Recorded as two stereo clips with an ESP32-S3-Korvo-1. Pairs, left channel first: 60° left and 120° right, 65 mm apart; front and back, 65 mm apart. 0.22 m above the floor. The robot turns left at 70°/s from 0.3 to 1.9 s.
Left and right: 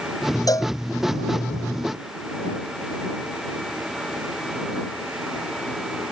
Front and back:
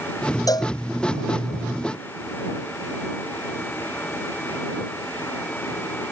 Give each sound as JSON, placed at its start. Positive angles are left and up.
{"t": 0.5, "sound": "a cowbell", "azimuth_deg": 30}